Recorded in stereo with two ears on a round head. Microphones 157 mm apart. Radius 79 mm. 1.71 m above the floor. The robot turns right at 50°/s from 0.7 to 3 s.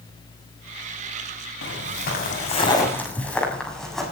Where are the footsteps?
75° left (ahead or behind), 6.5 m; by 4.1 s centre (ahead or behind), 7 m.